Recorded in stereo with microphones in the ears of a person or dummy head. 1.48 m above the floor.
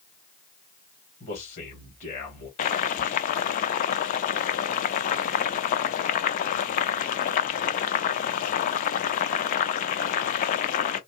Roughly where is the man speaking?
Left.